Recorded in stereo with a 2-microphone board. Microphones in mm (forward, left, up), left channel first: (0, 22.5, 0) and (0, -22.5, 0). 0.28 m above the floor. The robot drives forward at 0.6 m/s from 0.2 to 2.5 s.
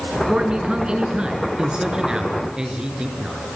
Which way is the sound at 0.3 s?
20° right (ahead or behind).